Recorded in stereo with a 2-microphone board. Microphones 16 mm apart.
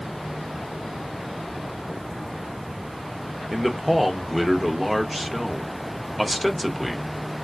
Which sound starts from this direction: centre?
A man speaking, at 3.5 s.